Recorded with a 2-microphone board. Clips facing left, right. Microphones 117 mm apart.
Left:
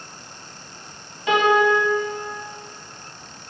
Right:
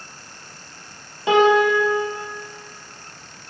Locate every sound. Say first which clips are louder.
1.3 s a piano: right 2 dB; 25° right (ahead or behind), 1.6 m